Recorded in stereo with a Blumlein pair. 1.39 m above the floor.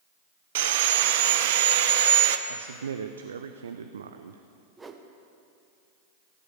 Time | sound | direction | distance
0.6 | sawing | 55° right | 0.7 m
2.5 | a man speaking | 70° right | 0.6 m
4.8 | a whoosh | 15° right | 1.0 m